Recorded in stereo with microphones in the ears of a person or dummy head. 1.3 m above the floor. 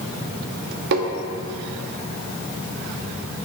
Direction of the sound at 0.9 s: 65° right (ahead or behind).